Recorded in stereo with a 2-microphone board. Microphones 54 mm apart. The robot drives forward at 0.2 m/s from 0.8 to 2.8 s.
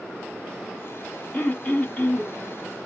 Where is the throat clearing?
30° left (ahead or behind), 1.1 m.